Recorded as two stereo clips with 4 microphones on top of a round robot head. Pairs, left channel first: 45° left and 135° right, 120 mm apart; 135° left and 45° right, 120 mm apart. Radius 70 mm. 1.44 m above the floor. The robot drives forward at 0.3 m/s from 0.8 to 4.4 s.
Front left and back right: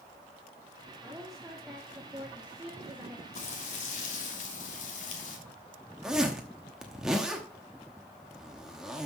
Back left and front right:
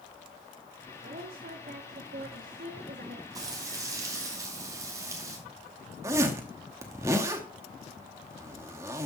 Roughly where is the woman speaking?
Ahead right.